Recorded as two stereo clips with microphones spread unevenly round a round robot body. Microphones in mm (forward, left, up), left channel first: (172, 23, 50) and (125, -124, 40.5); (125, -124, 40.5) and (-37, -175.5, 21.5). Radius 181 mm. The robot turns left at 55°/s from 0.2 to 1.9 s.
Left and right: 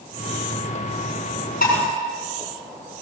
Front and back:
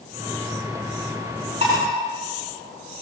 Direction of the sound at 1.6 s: 125° left.